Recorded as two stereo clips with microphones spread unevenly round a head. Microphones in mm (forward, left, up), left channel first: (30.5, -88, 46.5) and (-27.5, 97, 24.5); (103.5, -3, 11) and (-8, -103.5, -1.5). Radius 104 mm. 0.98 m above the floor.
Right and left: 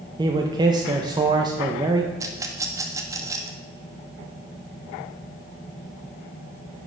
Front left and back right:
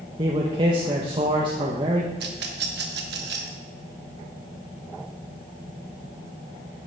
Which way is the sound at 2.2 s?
175° right.